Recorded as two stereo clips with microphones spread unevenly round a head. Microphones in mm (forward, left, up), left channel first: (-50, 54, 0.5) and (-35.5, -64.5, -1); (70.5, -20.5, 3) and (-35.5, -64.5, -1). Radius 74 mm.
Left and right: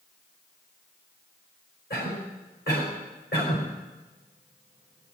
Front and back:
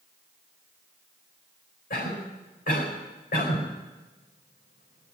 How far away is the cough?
About 4.5 m.